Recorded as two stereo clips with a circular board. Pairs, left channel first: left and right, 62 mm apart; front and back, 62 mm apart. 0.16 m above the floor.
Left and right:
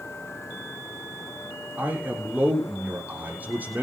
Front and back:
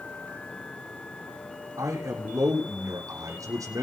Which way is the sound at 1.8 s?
155° right.